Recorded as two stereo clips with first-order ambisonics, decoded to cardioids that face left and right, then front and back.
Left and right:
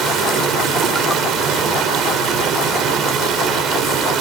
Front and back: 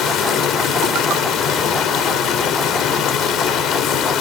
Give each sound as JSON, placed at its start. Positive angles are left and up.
{"t": 0.0, "sound": "running water", "azimuth_deg": -45, "distance_m": 1.7}